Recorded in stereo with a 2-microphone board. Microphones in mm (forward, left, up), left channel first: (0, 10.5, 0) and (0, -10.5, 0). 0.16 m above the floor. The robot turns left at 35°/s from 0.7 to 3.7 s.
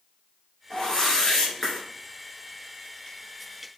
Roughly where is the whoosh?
Ahead left.